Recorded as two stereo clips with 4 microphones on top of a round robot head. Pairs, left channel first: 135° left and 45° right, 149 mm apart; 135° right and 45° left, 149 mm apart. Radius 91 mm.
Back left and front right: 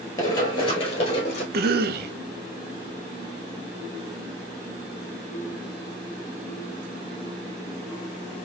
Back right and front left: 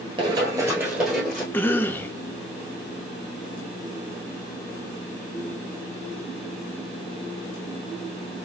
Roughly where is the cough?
Ahead right.